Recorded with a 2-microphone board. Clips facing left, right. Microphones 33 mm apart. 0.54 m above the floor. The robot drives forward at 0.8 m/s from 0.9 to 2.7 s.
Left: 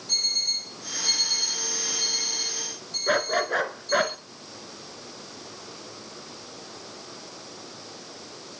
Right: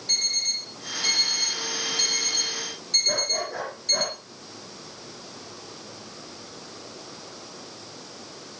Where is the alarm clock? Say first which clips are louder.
Even; 60° right (ahead or behind), 6.5 m; by 4.1 s 75° right (ahead or behind), 6 m.